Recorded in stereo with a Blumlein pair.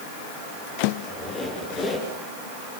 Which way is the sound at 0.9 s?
25° left.